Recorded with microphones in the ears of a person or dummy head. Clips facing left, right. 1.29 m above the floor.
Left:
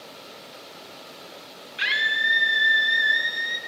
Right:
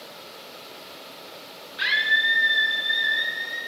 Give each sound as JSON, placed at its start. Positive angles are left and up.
{"t": 1.8, "sound": "a scream", "side_deg": 30, "distance_m": 1.2}